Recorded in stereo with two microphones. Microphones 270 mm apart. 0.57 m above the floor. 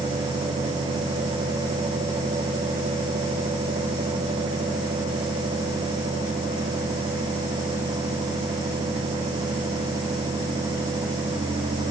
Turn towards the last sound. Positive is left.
No sound to turn to.